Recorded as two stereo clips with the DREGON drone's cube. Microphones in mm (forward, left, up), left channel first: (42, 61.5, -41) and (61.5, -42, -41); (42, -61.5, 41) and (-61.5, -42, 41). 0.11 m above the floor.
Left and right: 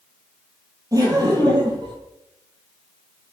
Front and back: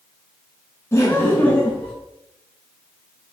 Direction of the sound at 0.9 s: 55° right.